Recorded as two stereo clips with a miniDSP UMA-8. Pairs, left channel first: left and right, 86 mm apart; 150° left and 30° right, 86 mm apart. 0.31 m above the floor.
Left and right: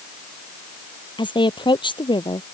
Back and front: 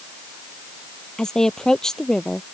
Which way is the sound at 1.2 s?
70° left.